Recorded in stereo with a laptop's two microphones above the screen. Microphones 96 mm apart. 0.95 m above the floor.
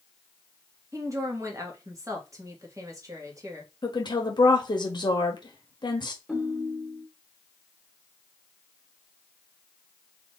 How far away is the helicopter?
I don't hear a helicopter.